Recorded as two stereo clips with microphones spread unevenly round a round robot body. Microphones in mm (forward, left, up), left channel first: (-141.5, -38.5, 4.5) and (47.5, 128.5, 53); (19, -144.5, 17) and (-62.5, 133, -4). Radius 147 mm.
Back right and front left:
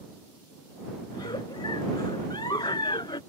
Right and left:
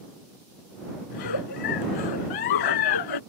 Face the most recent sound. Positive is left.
turn(degrees=-60)